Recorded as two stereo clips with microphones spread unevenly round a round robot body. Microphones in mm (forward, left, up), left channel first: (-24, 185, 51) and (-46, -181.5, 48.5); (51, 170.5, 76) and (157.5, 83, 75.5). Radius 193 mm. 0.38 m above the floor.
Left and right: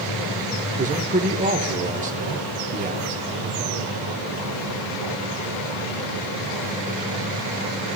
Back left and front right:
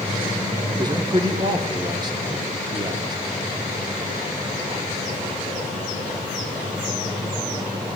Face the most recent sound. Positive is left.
turn(degrees=-45)